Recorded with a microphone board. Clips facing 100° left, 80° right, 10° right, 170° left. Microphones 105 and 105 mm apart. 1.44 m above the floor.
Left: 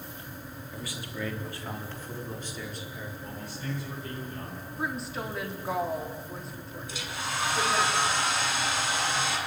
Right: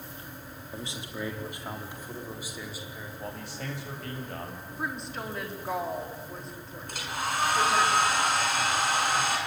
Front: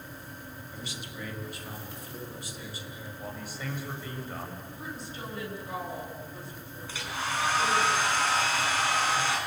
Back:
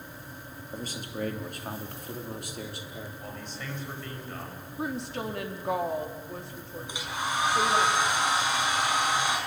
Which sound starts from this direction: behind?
A woman speaking, at 4.8 s.